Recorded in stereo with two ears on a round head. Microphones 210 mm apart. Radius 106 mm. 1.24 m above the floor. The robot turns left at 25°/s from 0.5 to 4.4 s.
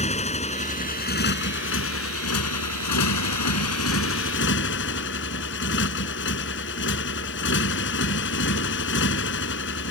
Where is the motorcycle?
150° left; by 9.9 s 50° left.